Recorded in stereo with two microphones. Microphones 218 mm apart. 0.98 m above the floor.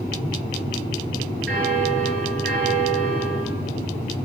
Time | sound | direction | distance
1.5 | a bell | 60° right (ahead or behind) | 8.5 m